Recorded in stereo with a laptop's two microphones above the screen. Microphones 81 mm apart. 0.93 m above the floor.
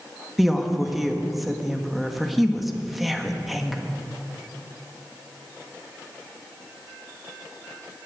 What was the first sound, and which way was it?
A woman speaking, centre (ahead or behind).